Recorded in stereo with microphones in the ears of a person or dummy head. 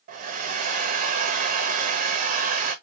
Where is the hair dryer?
45° right (ahead or behind), 1.3 m.